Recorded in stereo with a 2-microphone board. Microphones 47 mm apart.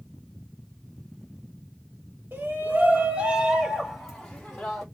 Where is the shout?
40° right (ahead or behind), 1.4 m; by 4.8 s 15° left (ahead or behind), 1.5 m.